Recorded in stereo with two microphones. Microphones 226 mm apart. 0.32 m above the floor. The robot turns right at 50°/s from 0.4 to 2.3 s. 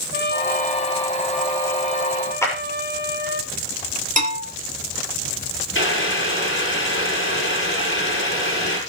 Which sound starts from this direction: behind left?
A trumpet, at 0.1 s.